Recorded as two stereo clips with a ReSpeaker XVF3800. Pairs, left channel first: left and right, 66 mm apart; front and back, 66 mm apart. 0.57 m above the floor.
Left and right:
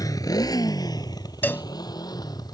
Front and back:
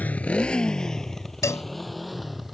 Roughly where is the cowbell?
Ahead left.